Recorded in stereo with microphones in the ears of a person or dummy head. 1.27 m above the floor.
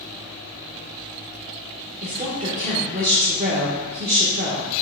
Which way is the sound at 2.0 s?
40° right (ahead or behind).